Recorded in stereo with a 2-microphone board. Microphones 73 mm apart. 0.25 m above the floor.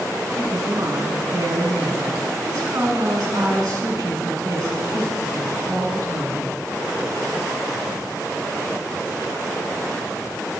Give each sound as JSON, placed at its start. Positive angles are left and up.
{"t": 0.3, "sound": "a woman speaking", "side_deg": -45, "distance_m": 1.7}